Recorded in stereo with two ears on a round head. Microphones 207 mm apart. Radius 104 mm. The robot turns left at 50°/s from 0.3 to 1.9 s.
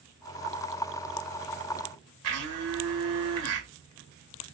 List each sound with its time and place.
2.2 s a blender: 75° right (ahead or behind), 1.8 m